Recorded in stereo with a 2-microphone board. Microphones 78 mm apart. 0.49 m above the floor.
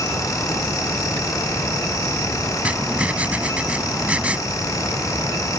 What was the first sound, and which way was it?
Writing, 20° right (ahead or behind).